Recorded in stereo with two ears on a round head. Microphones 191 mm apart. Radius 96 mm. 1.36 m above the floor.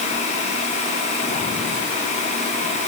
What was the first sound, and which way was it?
Only background noise.